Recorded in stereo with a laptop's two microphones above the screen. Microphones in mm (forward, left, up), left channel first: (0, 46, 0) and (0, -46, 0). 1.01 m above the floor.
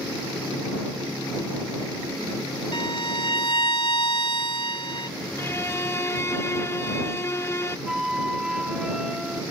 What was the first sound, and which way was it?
A violin, 60° left (ahead or behind).